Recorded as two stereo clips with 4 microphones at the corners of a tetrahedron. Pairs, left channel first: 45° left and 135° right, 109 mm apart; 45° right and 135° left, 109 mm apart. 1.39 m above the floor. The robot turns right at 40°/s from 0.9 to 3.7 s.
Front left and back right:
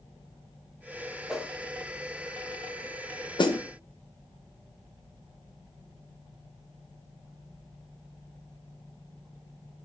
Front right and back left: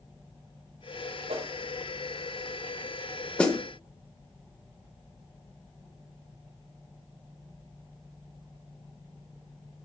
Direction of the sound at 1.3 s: 140° left.